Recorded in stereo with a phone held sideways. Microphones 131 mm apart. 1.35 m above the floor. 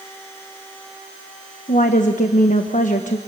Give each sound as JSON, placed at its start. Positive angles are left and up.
{"t": 1.7, "sound": "a woman speaking", "side_deg": 80, "distance_m": 1.1}